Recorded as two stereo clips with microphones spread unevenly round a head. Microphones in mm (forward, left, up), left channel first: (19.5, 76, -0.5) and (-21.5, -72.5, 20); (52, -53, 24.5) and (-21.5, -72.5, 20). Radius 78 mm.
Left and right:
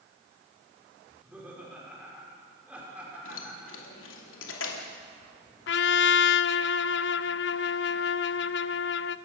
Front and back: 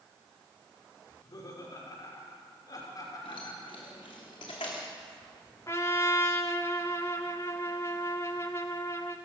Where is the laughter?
25° right, 6 m.